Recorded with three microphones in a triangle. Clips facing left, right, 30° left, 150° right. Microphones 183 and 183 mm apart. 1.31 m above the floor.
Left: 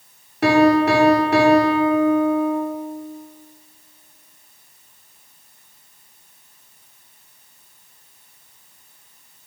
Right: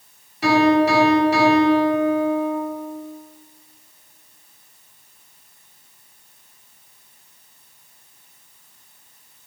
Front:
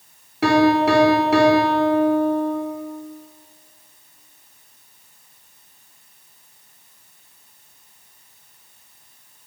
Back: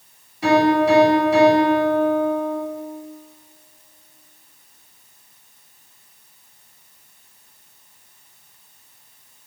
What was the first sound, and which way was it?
A piano, 55° left.